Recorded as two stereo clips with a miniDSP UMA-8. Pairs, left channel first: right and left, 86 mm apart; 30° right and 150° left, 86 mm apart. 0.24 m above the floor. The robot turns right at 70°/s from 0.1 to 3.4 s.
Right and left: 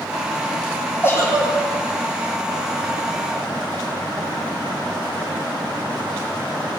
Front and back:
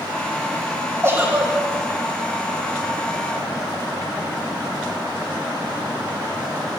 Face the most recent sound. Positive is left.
turn(degrees=10)